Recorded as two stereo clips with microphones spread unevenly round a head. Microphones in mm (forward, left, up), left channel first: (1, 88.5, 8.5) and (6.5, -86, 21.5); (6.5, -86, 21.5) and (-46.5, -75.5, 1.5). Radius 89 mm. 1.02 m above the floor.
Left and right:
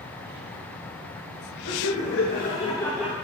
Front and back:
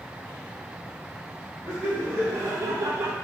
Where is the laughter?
100° left, 1.9 m; by 3.1 s 165° right, 1.1 m.